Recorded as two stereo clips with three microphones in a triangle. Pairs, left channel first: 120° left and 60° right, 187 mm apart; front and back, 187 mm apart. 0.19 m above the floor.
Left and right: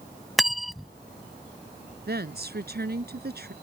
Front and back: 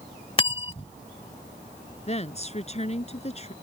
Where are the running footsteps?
No running footsteps in this recording.